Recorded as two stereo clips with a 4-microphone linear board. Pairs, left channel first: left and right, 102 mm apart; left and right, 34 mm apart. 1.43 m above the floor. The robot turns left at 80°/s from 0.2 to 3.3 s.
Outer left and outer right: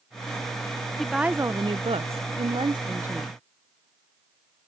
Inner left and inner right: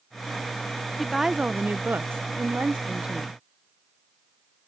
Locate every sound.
1.0 s a woman speaking: 5° left; by 3.4 s straight behind